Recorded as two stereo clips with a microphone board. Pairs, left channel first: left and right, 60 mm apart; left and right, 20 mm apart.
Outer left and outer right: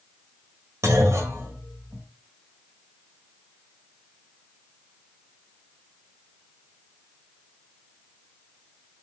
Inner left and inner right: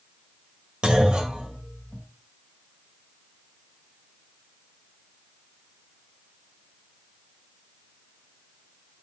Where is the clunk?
60° right (ahead or behind), 1.9 m.